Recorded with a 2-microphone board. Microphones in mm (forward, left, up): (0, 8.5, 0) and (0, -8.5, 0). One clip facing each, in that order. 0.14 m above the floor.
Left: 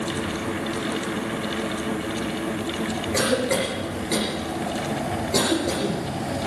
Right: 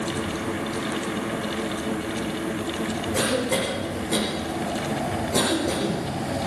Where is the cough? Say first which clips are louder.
Left 2 dB; 65° left (ahead or behind), 9 m.